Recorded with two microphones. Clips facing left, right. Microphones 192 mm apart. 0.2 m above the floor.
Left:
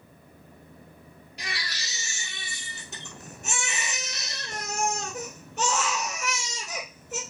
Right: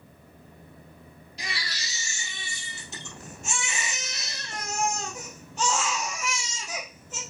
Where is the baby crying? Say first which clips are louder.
Even; 60° left (ahead or behind), 2.5 m.